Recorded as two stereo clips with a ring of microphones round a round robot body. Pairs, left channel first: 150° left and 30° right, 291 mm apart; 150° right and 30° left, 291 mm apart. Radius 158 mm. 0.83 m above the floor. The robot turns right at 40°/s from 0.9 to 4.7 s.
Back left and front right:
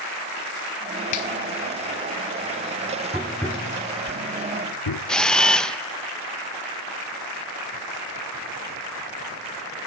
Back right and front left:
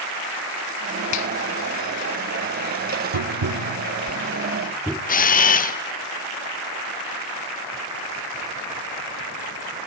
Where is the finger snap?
175° left, 0.7 m; by 1.3 s 175° right, 0.7 m.